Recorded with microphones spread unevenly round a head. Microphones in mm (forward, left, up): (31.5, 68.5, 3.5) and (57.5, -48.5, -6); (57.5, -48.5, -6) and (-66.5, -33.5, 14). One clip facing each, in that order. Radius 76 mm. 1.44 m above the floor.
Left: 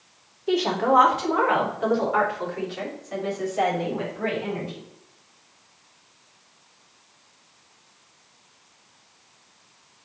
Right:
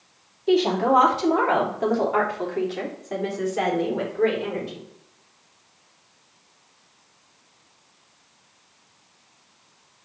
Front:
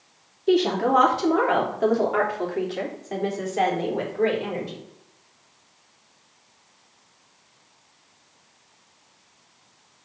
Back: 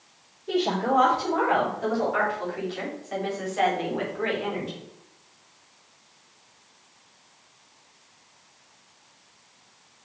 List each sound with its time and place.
0.5 s a woman speaking: 10° right, 3 m; by 4.8 s 65° right, 4 m